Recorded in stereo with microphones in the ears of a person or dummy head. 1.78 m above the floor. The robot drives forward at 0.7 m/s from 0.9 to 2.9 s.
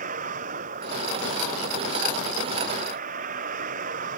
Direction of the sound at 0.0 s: 50° right (ahead or behind).